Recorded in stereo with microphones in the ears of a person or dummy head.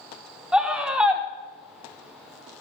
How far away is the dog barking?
No dog barking in this recording.